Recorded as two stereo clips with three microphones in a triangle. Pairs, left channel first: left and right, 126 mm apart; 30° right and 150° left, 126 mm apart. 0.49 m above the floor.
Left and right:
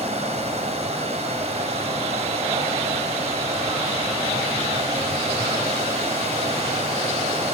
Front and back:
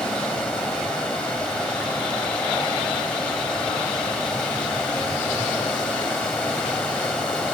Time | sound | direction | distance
0.0 | running water | 110° right | 1.9 m